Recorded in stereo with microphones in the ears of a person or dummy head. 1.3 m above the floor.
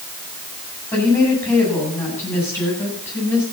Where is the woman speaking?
10° left (ahead or behind), 9 m.